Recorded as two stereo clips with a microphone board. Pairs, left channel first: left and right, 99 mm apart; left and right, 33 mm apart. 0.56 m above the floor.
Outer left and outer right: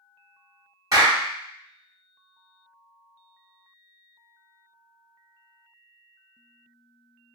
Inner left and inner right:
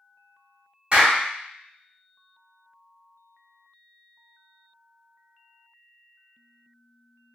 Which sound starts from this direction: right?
A clap, at 0.9 s.